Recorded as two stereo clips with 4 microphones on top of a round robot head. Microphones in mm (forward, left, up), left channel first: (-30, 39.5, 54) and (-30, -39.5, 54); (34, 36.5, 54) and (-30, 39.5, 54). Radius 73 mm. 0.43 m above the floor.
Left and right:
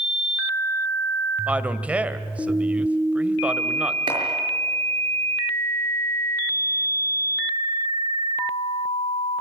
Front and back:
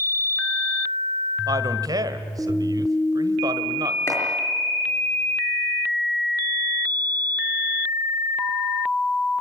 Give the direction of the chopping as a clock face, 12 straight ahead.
2 o'clock.